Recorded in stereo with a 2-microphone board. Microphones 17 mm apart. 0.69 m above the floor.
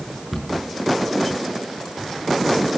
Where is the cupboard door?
10° right (ahead or behind), 6.5 m.